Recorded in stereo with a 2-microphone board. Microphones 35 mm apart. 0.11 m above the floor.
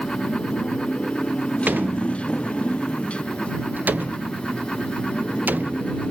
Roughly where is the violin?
I don't hear a violin.